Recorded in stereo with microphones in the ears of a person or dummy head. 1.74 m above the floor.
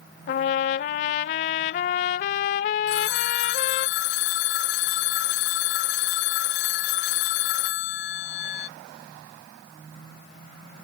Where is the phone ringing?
60° left (ahead or behind).